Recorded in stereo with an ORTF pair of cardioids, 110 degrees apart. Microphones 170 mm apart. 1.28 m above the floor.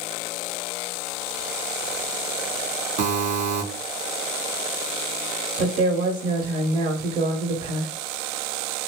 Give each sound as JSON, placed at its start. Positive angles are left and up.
{"t": 3.0, "sound": "a buzzer", "azimuth_deg": -55, "distance_m": 1.0}
{"t": 5.6, "sound": "a woman speaking", "azimuth_deg": -65, "distance_m": 1.3}